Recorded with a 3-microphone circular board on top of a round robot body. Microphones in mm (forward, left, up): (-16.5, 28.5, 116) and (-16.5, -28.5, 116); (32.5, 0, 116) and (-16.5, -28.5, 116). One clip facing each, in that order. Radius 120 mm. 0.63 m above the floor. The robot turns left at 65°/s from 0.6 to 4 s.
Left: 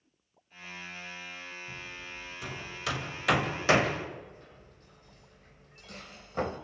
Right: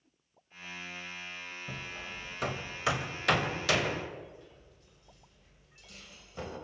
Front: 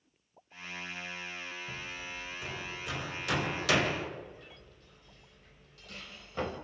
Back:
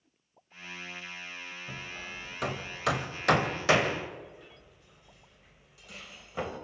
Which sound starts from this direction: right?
Hammering, at 1.7 s.